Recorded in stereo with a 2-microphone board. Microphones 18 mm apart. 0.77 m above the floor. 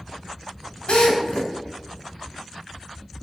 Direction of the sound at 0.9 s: 85° left.